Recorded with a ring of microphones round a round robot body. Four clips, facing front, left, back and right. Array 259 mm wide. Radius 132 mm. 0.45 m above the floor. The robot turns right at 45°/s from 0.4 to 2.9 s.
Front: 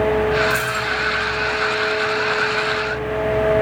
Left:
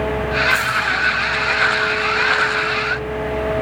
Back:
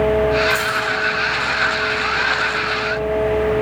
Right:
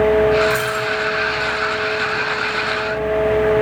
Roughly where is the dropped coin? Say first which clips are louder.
Even, back 2 dB; ahead right.